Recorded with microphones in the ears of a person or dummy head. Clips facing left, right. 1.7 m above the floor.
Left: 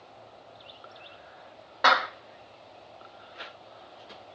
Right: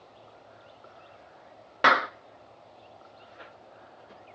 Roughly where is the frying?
I don't hear frying.